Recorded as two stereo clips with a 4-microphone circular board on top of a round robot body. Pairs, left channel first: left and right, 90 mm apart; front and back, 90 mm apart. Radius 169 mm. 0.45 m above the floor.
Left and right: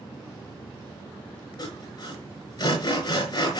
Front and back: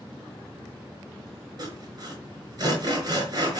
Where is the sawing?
135° left, 5 m.